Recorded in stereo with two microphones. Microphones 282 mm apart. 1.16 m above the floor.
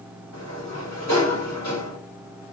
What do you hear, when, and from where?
0.3 s a sliding door: 65° left (ahead or behind), 3.5 m